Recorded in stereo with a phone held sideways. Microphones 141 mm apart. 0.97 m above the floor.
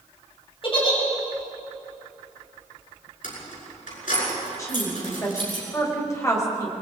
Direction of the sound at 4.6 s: 25° left (ahead or behind).